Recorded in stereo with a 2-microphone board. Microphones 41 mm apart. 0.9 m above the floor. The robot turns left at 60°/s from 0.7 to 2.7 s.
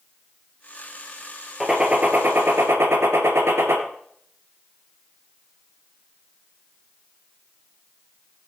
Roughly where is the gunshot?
Ahead.